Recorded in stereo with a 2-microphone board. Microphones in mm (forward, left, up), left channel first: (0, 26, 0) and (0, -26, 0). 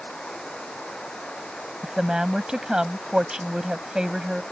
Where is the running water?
15° left (ahead or behind).